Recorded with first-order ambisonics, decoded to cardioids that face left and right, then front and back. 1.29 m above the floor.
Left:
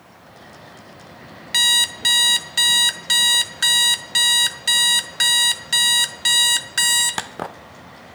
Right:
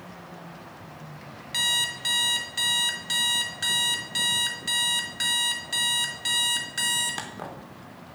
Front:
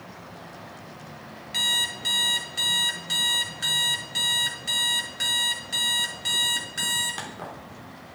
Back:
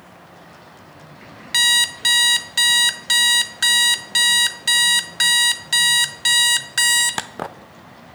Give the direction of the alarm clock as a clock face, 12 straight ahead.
7 o'clock.